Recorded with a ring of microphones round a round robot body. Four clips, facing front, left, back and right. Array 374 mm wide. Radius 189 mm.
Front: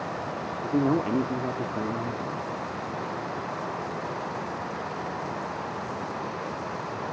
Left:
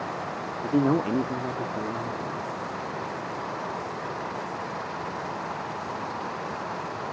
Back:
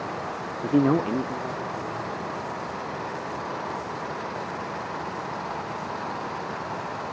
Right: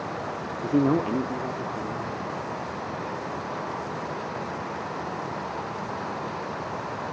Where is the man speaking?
165° right, 0.8 m; by 2.5 s 20° left, 1.3 m.